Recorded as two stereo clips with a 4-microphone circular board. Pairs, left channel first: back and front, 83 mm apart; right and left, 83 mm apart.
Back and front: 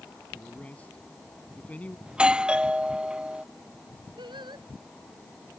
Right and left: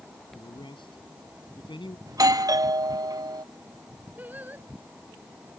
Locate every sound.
0.3 s a man speaking: 105° right; by 2.0 s 110° right
2.1 s a doorbell: 75° left
4.2 s singing: 20° left